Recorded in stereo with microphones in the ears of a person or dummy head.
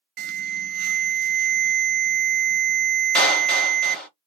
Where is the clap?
10° left (ahead or behind), 1.3 m.